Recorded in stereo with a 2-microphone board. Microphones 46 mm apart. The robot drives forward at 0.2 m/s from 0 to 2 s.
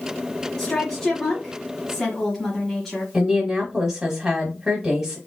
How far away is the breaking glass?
No breaking glass in this recording.